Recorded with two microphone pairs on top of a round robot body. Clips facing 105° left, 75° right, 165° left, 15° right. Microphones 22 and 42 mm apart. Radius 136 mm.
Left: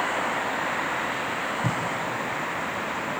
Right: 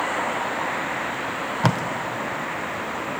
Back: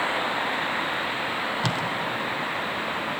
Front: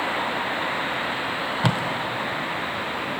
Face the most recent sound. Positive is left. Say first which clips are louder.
# right 10 dB, front 6 dB
turn(degrees=-90)